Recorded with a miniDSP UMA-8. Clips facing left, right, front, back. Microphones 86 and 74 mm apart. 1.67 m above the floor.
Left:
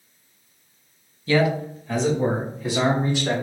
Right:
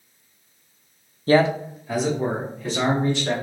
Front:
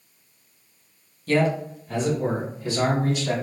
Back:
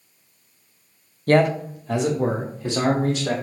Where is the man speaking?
135° right, 0.5 m; by 3.3 s 170° left, 2.5 m.